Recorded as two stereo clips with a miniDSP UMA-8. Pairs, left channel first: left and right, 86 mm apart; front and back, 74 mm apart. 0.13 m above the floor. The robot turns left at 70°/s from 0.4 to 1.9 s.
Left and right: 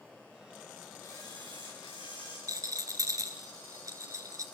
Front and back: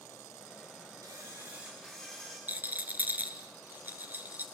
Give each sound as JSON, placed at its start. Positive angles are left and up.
{"t": 1.0, "sound": "a camera shutter", "azimuth_deg": 145, "distance_m": 7.0}
{"t": 2.5, "sound": "a rattle", "azimuth_deg": -120, "distance_m": 1.7}